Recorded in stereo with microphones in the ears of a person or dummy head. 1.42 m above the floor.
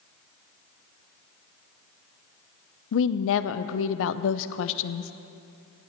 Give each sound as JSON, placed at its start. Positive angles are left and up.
{"t": 2.9, "sound": "a woman speaking", "side_deg": 70, "distance_m": 0.6}